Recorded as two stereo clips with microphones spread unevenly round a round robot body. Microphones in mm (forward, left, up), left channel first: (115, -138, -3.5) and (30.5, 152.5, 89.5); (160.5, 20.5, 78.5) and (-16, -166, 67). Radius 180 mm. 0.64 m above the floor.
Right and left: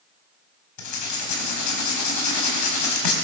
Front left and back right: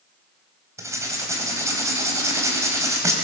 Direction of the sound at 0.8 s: 55° right.